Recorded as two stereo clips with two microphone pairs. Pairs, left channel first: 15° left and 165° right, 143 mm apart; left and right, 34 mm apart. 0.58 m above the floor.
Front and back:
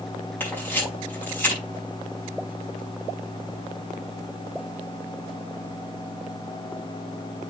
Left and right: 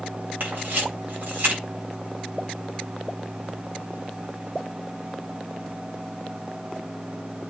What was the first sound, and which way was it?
A camera shutter, 60° right.